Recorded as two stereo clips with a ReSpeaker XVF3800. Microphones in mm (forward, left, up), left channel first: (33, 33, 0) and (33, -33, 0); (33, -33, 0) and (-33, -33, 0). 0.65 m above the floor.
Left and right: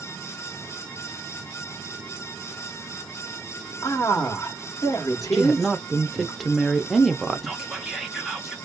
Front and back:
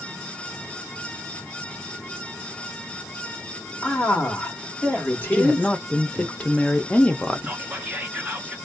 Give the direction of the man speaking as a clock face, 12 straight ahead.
10 o'clock.